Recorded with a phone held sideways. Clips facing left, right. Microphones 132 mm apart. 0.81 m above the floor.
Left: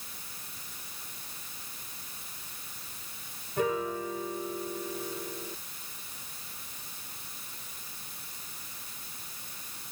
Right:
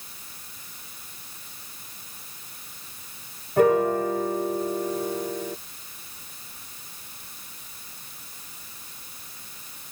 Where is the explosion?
No explosion in this recording.